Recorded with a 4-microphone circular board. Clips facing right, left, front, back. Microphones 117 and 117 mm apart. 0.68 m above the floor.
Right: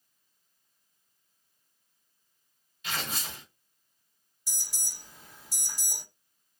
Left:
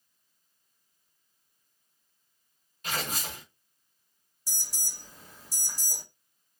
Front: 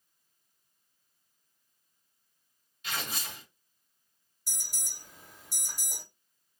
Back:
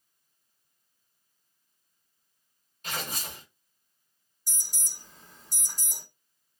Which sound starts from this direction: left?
An alarm, at 4.5 s.